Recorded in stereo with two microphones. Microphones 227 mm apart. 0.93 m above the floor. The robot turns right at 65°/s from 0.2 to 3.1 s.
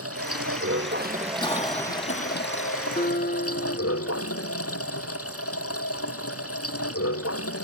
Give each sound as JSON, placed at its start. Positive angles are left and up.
{"t": 0.0, "sound": "running water", "azimuth_deg": -95}
{"t": 1.4, "sound": "a cough", "azimuth_deg": 20}
{"t": 3.0, "sound": "a guitar", "side_deg": 35}